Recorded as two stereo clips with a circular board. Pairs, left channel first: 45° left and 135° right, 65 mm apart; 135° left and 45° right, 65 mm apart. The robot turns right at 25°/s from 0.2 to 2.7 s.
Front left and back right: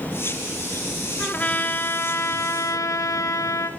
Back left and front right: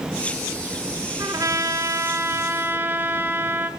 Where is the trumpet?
25° right, 1.1 m; by 3.7 s 15° left, 1.1 m.